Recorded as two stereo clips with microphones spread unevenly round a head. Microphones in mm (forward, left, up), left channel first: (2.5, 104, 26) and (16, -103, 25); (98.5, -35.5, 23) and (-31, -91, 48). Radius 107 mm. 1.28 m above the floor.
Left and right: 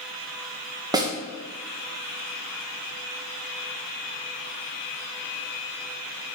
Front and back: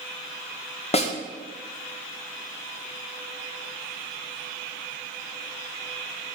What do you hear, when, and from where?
0.9 s a snare drum: 15° right, 1.5 m